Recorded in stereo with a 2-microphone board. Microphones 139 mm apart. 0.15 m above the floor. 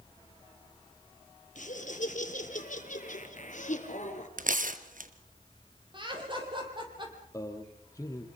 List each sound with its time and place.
1.6 s laughter: 65° left (ahead or behind), 3.5 m; by 4.3 s 60° left (ahead or behind), 2.5 m
4.4 s tearing paper: 70° right (ahead or behind), 1.2 m
5.9 s laughter: 35° right (ahead or behind), 5.5 m
7.3 s a man speaking: 25° left (ahead or behind), 3.5 m